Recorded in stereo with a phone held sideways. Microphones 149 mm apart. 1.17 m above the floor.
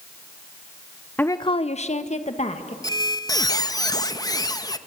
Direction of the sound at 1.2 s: 10° left (ahead or behind).